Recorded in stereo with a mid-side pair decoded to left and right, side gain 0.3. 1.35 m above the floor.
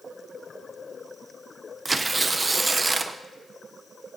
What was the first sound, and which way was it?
Tearing paper, 35° right.